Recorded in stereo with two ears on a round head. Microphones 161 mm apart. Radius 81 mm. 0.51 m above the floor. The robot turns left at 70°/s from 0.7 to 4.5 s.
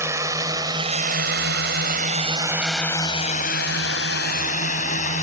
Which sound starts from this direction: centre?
A drone, at 0.0 s.